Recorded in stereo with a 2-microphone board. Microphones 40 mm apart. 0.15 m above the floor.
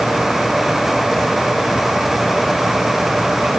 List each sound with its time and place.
Only background noise.